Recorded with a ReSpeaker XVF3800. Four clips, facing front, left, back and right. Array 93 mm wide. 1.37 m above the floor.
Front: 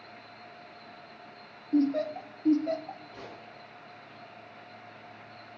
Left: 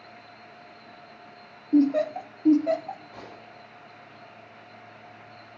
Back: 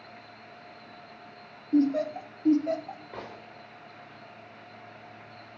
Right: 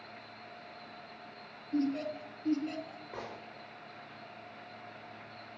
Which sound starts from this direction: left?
Laughter, at 1.7 s.